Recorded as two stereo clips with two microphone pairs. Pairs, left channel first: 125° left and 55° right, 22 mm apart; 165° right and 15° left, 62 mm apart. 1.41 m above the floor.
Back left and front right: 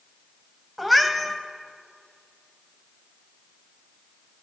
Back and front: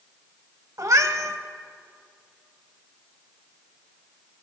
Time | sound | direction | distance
0.8 | a cat meowing | 35° left | 1.0 m